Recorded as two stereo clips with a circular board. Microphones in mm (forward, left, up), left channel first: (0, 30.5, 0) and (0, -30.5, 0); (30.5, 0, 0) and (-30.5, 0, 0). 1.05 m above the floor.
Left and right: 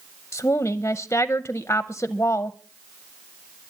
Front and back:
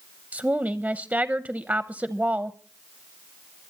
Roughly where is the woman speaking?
Behind left.